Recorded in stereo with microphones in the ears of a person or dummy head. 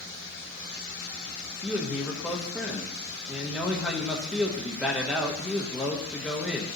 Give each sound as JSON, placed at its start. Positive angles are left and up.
{"t": 1.6, "sound": "a man speaking", "side_deg": 5, "distance_m": 1.2}